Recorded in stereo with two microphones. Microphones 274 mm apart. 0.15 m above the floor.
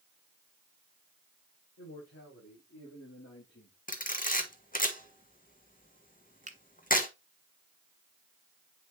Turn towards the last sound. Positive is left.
turn(degrees=-25)  # may be behind; listen again after turning